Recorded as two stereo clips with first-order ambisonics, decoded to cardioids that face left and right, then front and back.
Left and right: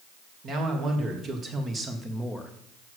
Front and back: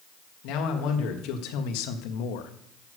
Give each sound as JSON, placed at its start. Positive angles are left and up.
{"t": 0.4, "sound": "a man speaking", "azimuth_deg": -30, "distance_m": 1.8}